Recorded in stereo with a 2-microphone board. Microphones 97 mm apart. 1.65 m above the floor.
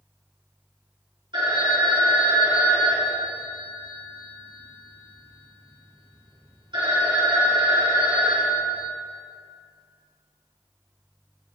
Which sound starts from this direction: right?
A phone ringing, at 1.3 s.